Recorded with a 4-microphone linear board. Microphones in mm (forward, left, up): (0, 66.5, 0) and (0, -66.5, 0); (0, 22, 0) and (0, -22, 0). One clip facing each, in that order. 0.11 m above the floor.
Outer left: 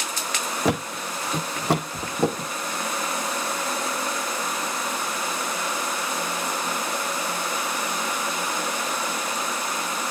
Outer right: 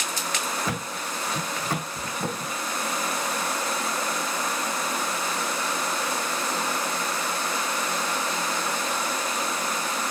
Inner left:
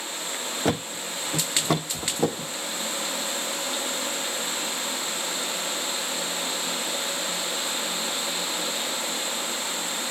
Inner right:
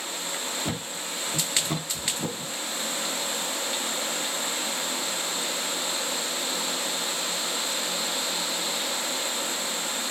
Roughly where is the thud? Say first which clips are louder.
Outer left 6 dB, inner left 5 dB; left.